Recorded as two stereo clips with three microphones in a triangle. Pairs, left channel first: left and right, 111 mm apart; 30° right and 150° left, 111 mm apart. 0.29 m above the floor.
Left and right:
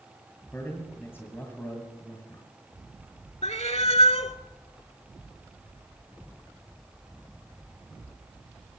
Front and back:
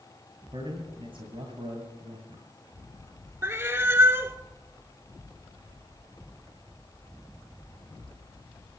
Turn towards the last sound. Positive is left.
turn(degrees=85)